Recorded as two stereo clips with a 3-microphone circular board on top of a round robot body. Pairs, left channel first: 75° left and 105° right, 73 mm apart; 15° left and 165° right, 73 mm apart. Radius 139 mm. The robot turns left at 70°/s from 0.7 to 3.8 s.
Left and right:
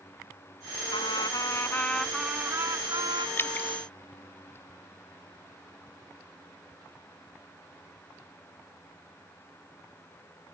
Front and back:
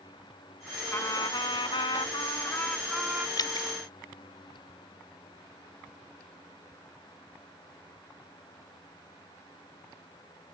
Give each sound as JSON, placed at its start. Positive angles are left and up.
{"t": 0.9, "sound": "a trumpet", "azimuth_deg": 70}
{"t": 3.4, "sound": "dripping", "azimuth_deg": 25}